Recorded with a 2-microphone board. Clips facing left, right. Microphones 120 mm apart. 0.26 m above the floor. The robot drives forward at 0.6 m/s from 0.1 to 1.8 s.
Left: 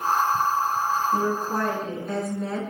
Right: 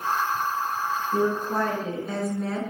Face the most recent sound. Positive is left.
turn(degrees=0)  # may be behind; listen again after turning